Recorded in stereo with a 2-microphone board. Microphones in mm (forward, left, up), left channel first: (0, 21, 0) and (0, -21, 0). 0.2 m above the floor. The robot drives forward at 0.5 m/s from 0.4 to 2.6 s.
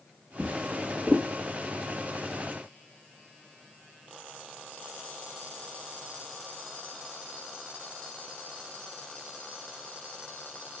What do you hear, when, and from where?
0.4 s a drawer: 30° right (ahead or behind), 1.9 m; by 1.3 s 40° right (ahead or behind), 1.6 m